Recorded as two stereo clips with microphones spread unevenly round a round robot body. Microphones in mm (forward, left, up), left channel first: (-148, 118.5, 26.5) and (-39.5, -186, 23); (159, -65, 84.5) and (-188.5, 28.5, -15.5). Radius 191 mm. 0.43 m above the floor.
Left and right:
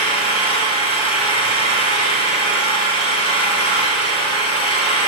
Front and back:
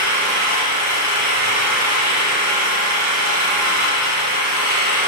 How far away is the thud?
No thud in this recording.